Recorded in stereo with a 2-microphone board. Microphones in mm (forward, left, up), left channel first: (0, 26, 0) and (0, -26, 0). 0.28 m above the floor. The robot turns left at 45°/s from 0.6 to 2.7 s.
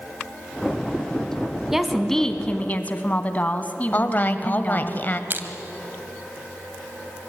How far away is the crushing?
About 1.5 m.